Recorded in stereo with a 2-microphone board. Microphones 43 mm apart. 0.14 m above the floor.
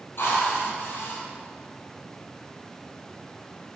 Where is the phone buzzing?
I don't hear a phone buzzing.